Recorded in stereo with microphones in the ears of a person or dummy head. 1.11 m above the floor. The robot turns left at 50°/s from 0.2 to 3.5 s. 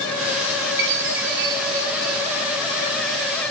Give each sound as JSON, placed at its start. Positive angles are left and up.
{"t": 0.8, "sound": "a chime", "azimuth_deg": -85, "distance_m": 1.6}